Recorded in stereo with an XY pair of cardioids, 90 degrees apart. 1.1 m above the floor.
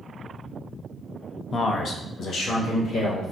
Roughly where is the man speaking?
Ahead left.